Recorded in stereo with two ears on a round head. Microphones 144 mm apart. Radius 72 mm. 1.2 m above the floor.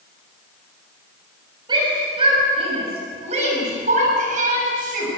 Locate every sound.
1.7 s a shout: 30° right (ahead or behind), 6.5 m; by 5.1 s 55° right (ahead or behind), 7 m